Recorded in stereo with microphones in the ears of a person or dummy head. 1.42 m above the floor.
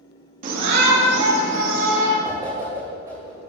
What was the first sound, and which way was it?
A shout, 40° right (ahead or behind).